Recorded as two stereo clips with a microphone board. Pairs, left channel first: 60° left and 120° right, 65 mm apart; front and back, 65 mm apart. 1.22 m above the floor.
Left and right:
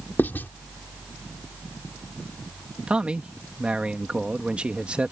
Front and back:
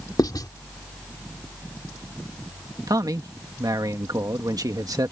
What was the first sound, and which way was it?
Writing, straight ahead.